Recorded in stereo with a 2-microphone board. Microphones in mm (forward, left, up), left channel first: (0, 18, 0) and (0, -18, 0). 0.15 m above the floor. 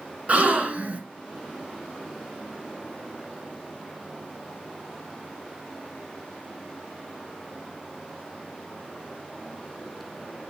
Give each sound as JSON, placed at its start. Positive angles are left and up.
{"t": 0.3, "sound": "a gasp", "side_deg": -40, "distance_m": 1.4}